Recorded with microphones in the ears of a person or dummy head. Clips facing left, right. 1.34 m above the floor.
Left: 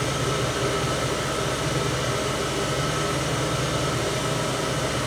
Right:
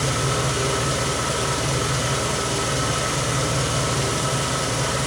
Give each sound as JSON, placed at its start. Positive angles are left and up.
{"t": 0.0, "sound": "an engine running", "side_deg": -75, "distance_m": 2.0}